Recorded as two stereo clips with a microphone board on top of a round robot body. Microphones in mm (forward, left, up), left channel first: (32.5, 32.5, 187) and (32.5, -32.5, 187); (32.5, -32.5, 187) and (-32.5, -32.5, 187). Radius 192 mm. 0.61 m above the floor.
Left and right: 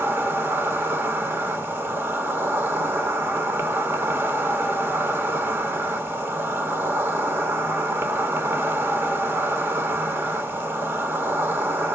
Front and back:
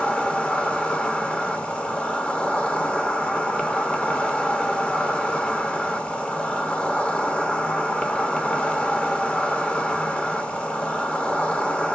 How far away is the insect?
About 1.6 m.